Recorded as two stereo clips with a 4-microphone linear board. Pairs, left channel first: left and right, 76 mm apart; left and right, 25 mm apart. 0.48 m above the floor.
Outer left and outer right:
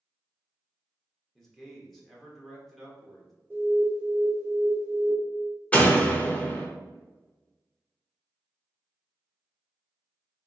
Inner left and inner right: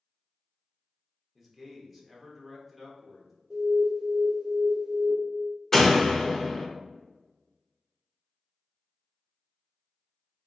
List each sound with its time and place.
1.4 s a man speaking: centre (ahead or behind), 1.1 m
3.5 s an alarm: 25° right (ahead or behind), 2.0 m
5.7 s a door slam: 15° left (ahead or behind), 0.7 m